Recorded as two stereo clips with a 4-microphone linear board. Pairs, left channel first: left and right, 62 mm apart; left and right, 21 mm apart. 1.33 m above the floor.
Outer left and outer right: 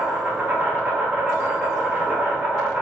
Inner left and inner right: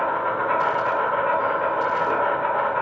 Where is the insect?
35° right (ahead or behind), 0.8 m.